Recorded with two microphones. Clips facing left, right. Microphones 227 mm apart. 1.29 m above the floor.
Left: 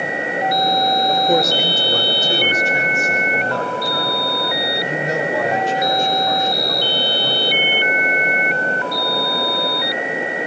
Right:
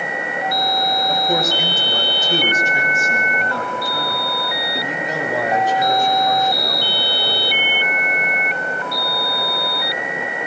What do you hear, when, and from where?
1.1 s a man speaking: 55° left (ahead or behind), 5 m; by 7.5 s 85° left, 10 m